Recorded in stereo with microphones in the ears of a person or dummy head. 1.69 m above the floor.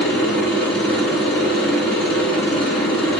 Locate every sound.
0.0 s a machine running: 5° left (ahead or behind), 0.9 m